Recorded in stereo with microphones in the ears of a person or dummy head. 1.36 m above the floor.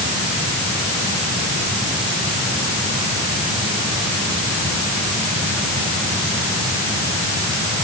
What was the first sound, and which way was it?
Only background noise.